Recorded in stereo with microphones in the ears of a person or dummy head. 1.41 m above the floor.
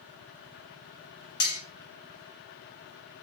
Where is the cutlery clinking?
50° left (ahead or behind), 1.1 m.